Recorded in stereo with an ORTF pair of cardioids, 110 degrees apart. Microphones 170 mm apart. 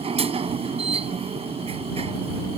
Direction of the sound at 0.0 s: 35° right.